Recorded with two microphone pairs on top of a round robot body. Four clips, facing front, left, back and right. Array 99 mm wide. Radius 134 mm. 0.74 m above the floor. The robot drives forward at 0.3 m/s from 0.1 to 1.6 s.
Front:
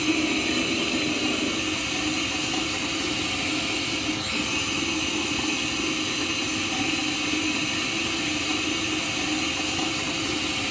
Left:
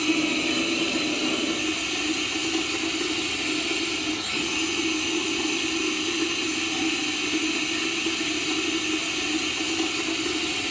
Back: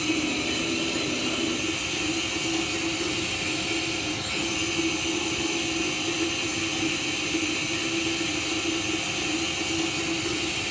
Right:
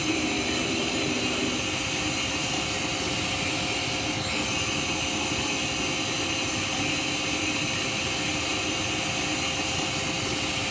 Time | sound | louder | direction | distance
0.0 | running water | left 3 dB, front 3 dB | 10° right | 6 m